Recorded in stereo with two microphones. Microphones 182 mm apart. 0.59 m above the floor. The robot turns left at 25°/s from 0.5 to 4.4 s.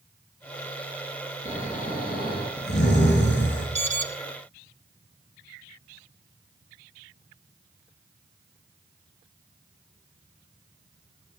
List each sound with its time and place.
1.4 s snoring: 140° left, 4.5 m; by 3.6 s 85° left, 4.5 m
3.8 s an alarm: 40° right (ahead or behind), 1.0 m; by 4.1 s 45° right (ahead or behind), 1.0 m